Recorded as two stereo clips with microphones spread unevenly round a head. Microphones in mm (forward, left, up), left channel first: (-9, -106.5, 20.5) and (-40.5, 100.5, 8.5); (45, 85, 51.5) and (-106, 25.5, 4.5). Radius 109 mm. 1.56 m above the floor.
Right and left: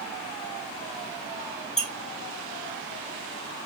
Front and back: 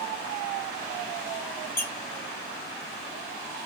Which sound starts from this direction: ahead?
A squeak, at 1.8 s.